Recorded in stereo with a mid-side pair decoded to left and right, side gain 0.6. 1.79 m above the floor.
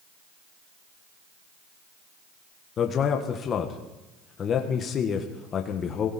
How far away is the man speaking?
About 1.6 m.